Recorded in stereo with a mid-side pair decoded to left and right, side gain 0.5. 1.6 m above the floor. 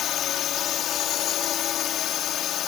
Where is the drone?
65° left.